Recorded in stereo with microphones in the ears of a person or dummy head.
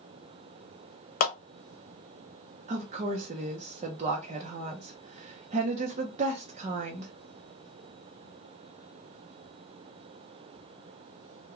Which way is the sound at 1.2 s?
50° left (ahead or behind).